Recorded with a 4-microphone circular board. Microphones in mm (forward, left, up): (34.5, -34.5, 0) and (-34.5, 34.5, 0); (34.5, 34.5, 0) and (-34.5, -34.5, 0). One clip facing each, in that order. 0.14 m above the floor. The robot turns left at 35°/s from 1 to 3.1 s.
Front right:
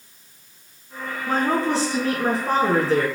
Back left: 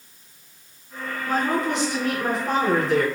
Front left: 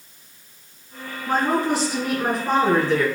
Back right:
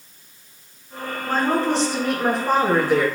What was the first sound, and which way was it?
A woman speaking, 10° right.